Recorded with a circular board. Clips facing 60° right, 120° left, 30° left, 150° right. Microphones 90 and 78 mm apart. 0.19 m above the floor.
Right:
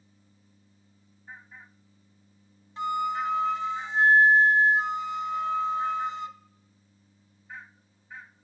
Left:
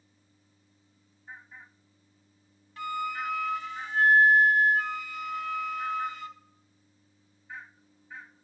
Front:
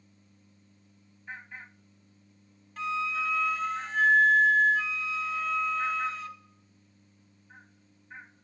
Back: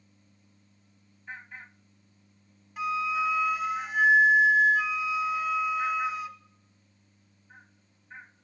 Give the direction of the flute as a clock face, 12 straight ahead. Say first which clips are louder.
Right 5 dB, back 3 dB; 3 o'clock.